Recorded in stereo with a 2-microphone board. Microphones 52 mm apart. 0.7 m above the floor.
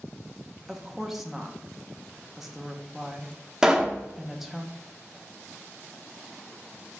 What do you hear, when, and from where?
0.7 s a woman speaking: 5° right (ahead or behind), 0.6 m
3.6 s a pop: 15° right (ahead or behind), 0.5 m